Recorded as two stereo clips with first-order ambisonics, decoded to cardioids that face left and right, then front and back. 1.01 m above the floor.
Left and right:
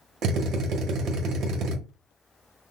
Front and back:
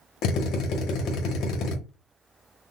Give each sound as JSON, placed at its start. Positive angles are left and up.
{"t": 0.2, "sound": "a drill", "azimuth_deg": -40, "distance_m": 0.9}